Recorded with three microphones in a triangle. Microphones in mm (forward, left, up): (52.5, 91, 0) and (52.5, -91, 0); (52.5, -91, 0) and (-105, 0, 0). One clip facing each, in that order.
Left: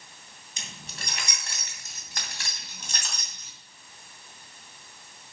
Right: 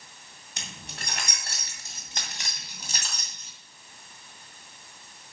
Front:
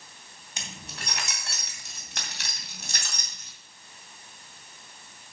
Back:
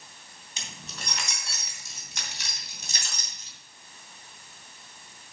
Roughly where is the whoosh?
I don't hear a whoosh.